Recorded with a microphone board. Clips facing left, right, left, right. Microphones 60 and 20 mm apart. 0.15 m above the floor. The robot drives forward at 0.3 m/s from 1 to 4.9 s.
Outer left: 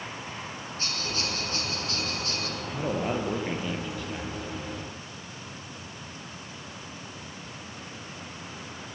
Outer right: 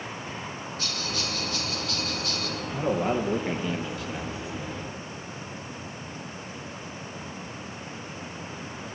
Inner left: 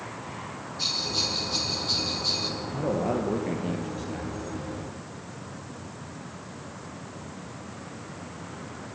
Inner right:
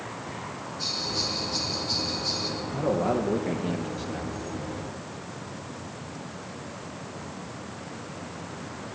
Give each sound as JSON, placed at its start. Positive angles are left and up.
{"t": 0.8, "sound": "a bell", "side_deg": 30, "distance_m": 3.5}
{"t": 2.6, "sound": "a man speaking", "side_deg": -5, "distance_m": 3.5}